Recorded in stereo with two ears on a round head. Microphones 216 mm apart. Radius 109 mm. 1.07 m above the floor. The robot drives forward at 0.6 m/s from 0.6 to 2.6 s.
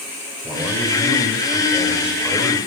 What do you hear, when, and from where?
0.4 s a man speaking: 5° right (ahead or behind), 4.5 m